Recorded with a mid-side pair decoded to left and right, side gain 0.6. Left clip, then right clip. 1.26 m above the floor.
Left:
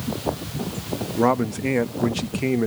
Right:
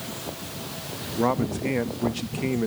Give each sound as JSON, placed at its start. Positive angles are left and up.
{"t": 1.2, "sound": "a man speaking", "azimuth_deg": 25, "distance_m": 1.2}